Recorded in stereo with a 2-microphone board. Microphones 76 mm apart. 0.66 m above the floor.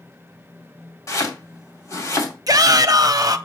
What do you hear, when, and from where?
1.1 s chopping: 45° left (ahead or behind), 2.5 m
2.5 s a shout: 50° right (ahead or behind), 0.8 m